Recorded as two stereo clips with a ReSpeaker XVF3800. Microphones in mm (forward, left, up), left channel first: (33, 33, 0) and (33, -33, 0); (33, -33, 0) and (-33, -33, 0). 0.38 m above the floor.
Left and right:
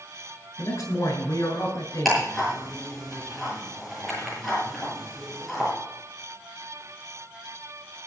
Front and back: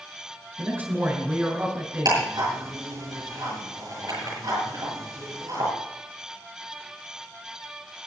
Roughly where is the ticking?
Behind.